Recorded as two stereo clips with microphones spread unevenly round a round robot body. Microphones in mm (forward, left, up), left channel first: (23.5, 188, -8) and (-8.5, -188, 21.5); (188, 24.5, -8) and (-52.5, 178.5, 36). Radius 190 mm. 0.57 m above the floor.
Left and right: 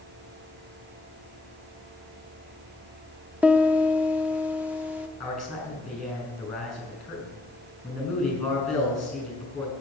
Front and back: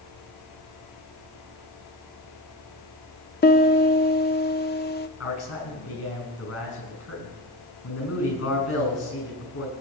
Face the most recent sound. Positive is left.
turn(degrees=-5)